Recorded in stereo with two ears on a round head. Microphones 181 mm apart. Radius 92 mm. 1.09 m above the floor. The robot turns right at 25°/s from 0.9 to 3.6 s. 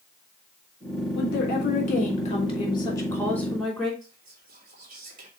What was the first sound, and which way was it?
A woman speaking, 115° left.